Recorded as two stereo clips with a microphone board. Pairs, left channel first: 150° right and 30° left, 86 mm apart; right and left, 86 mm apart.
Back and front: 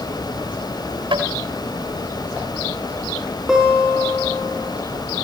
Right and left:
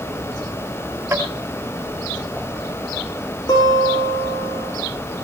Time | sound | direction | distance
1.1 | tapping | 20° left | 5.5 m
3.5 | a guitar | 55° right | 7.5 m